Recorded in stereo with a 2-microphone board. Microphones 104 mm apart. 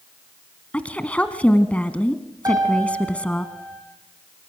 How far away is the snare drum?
I don't hear a snare drum.